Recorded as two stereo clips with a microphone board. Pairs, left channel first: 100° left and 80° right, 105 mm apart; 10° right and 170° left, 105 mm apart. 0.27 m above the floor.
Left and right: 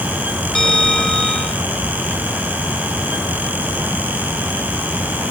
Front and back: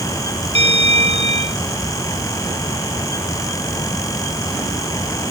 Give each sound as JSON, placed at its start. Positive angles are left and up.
{"t": 0.6, "sound": "a bell", "azimuth_deg": -175}